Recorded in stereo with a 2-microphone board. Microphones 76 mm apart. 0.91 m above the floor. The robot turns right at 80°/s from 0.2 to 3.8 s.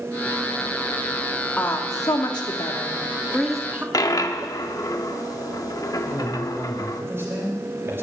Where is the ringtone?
I don't hear a ringtone.